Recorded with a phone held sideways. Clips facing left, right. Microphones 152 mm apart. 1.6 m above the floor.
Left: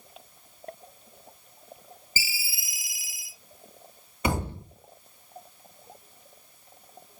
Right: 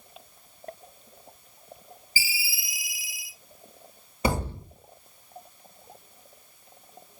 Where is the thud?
30° right (ahead or behind), 1.5 m.